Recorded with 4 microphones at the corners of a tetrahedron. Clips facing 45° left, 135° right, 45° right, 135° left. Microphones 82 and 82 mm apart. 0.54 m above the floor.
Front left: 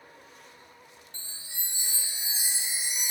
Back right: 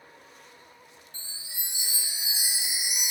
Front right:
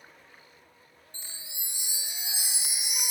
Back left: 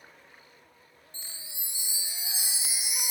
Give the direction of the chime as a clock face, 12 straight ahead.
2 o'clock.